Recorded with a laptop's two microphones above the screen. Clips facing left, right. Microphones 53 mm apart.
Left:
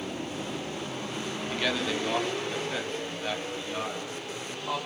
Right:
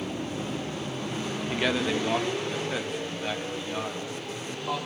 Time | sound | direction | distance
1.5 | a man speaking | 15° right (ahead or behind) | 1.3 m